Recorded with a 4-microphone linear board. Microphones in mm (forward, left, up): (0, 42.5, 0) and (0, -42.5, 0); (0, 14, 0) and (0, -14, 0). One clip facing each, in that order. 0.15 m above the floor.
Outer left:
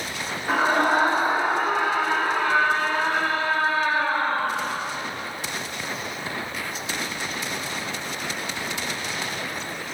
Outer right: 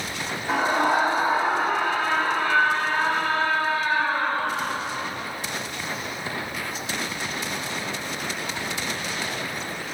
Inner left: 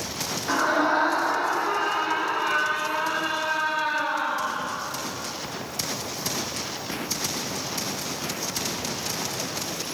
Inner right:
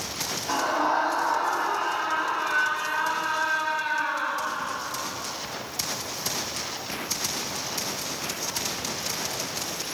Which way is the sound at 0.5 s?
45° left (ahead or behind).